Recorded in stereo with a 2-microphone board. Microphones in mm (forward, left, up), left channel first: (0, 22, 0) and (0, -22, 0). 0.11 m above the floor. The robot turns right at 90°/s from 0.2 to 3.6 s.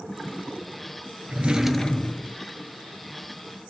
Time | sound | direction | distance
1.3 | a drawer | 40° right | 0.5 m